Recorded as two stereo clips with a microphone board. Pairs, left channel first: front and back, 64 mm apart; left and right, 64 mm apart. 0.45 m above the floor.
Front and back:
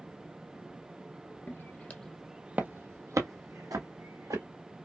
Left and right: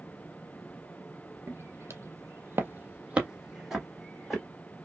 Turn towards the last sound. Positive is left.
turn(degrees=180)